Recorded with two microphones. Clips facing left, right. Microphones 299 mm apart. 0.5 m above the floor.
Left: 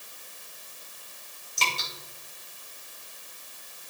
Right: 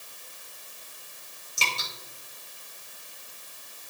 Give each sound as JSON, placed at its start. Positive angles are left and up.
{"t": 1.6, "sound": "dripping", "side_deg": -10, "distance_m": 3.0}